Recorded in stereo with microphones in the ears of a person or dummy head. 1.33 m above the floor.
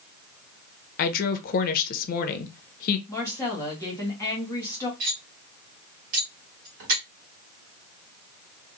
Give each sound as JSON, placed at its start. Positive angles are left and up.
{"t": 1.0, "sound": "a woman speaking", "side_deg": 50, "distance_m": 0.6}
{"t": 3.1, "sound": "a woman speaking", "side_deg": 15, "distance_m": 1.4}
{"t": 5.0, "sound": "cutlery clinking", "side_deg": -55, "distance_m": 1.3}